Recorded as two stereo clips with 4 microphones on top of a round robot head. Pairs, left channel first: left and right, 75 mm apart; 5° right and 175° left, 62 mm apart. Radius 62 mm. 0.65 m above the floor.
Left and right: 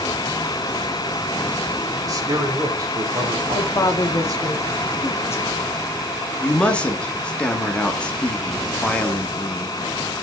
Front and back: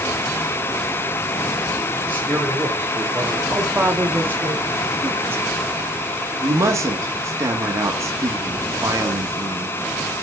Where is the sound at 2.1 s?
120° right, 2 m.